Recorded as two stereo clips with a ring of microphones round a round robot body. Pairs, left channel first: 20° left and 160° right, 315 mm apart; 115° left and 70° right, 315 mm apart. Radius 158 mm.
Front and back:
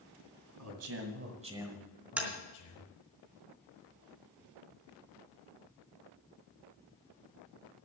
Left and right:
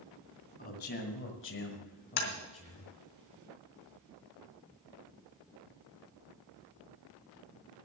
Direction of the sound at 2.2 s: 115° left.